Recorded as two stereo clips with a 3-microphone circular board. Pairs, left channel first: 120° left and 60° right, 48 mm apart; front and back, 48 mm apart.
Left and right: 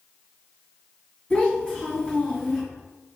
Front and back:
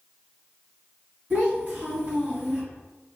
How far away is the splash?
No splash in this recording.